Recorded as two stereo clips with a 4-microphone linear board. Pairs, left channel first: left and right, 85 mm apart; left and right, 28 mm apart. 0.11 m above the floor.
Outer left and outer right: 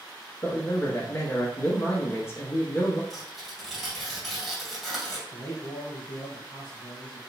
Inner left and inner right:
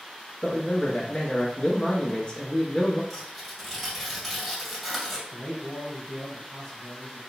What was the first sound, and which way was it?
A man speaking, 30° left (ahead or behind).